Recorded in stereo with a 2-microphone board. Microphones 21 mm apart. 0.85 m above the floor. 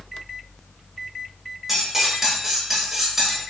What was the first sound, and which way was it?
Cutlery clinking, 10° right (ahead or behind).